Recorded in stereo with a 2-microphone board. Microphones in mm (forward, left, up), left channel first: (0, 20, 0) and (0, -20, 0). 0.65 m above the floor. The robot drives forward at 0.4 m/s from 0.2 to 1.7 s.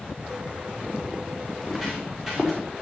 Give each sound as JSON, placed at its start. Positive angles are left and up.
{"t": 1.5, "sound": "footsteps", "side_deg": -10, "distance_m": 3.5}